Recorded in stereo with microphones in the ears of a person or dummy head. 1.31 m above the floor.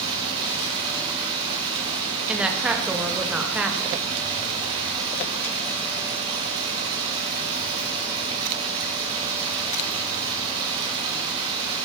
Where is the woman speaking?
5° right (ahead or behind), 0.9 m.